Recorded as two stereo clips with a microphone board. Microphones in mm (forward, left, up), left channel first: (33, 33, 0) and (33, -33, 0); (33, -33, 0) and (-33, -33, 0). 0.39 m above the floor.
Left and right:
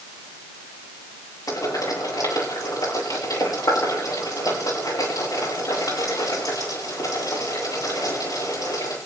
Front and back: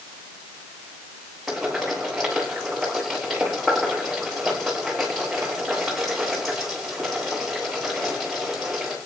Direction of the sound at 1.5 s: 90° left.